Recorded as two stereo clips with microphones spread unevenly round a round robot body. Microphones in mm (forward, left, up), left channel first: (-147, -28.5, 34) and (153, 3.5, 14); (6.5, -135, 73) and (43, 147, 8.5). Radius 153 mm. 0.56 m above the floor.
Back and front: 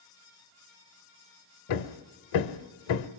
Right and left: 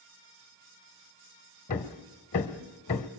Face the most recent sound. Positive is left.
turn(degrees=-160)